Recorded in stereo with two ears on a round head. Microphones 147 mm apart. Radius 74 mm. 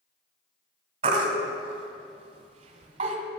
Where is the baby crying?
40° right (ahead or behind), 1.8 m.